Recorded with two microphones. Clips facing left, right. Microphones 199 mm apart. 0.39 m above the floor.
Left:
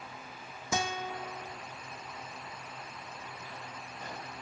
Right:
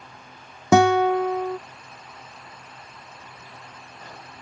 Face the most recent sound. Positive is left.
turn(degrees=-75)  # may be behind; listen again after turning